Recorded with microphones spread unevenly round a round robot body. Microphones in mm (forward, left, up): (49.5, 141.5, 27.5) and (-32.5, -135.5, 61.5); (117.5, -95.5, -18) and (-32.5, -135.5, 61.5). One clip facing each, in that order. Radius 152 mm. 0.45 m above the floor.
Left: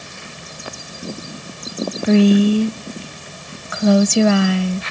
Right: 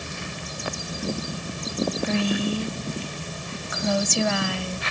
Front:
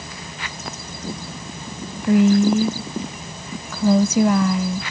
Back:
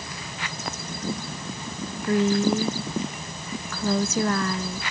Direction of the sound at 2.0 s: 80° left.